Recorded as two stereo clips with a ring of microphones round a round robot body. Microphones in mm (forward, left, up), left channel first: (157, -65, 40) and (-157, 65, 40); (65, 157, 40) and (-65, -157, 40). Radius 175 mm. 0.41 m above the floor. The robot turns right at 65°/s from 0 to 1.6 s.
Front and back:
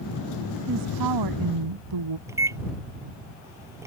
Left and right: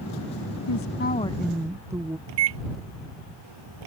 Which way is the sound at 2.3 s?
120° right.